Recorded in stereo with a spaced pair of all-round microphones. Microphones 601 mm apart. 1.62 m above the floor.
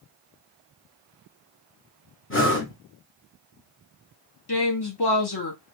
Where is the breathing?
20° left (ahead or behind), 1.0 m.